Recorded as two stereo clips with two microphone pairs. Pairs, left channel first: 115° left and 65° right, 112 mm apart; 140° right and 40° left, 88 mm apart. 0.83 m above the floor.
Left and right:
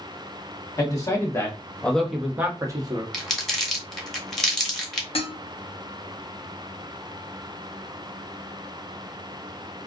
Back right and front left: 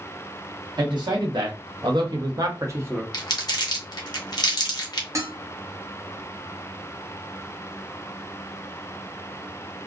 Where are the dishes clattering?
90° left, 0.6 m.